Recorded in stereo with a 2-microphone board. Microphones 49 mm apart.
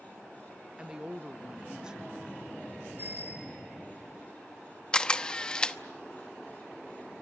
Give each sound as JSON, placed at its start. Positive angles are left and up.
{"t": 0.8, "sound": "a woman speaking", "side_deg": -15, "distance_m": 0.5}
{"t": 3.0, "sound": "a bicycle bell", "side_deg": -40, "distance_m": 10.0}
{"t": 4.9, "sound": "a camera shutter", "side_deg": 20, "distance_m": 0.8}